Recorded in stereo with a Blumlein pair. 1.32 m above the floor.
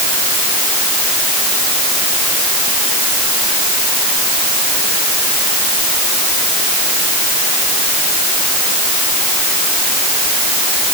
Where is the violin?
No violin in this recording.